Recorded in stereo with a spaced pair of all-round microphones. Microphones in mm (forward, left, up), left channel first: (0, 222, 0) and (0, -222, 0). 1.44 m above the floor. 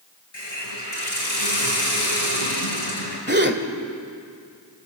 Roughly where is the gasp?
Right.